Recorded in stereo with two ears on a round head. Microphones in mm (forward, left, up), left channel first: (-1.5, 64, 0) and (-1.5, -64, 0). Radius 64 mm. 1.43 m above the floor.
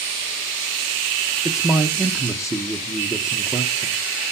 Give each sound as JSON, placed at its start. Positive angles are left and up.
{"t": 1.4, "sound": "a man speaking", "side_deg": 0, "distance_m": 1.2}